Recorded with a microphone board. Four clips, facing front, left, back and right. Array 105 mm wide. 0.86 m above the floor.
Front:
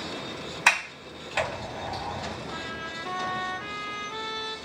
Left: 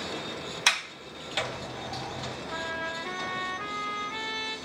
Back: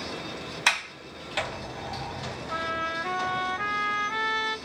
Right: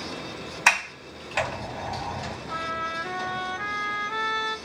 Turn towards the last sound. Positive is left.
turn(degrees=-150)